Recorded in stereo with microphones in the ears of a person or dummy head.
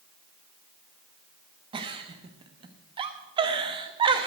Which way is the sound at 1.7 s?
25° right (ahead or behind).